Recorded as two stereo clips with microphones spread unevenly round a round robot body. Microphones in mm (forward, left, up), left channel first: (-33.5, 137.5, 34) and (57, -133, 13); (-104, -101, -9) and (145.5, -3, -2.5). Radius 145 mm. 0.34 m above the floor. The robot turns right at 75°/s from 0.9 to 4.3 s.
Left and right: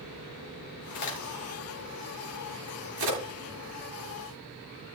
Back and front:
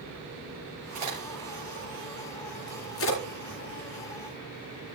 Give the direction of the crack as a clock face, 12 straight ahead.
9 o'clock.